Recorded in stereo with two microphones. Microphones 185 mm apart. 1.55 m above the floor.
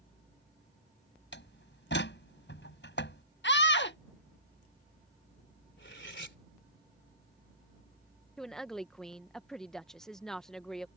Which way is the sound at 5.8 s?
80° left.